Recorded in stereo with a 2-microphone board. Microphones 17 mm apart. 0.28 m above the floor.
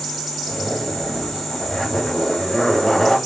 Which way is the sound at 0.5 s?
35° left (ahead or behind).